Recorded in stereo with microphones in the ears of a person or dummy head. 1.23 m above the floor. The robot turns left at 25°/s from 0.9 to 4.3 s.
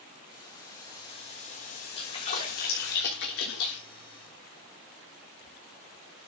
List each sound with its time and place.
0.3 s boiling: 155° left, 2 m; by 3.0 s 100° left, 2 m
2.0 s a splash: 35° left (ahead or behind), 3.5 m; by 3.8 s 80° left, 3.5 m